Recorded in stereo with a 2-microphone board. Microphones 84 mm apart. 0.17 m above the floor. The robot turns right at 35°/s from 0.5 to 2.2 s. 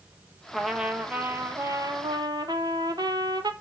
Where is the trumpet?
Straight behind, 1.2 m; by 3.5 s 125° right, 1.2 m.